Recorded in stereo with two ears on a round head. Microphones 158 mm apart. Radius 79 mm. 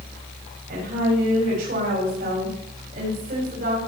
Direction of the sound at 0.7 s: 50° right (ahead or behind).